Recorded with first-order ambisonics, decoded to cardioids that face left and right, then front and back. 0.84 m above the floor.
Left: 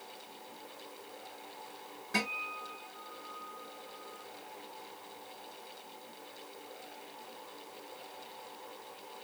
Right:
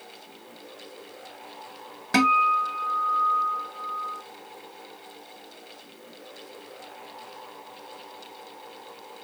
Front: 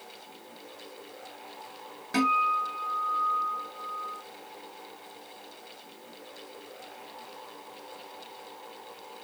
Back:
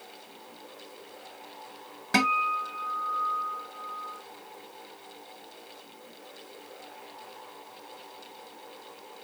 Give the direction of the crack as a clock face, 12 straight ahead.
I don't hear a crack.